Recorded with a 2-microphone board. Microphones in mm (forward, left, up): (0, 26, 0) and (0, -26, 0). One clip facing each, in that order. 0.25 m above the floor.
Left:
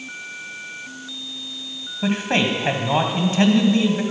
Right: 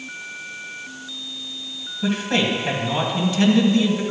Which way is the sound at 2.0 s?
40° left (ahead or behind).